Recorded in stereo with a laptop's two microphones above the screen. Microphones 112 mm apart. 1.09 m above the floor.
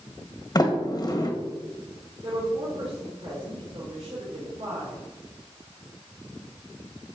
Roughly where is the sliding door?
Left.